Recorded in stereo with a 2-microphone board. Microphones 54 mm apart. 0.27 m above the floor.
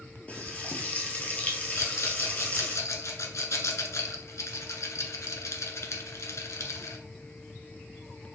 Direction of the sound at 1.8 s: 65° left (ahead or behind).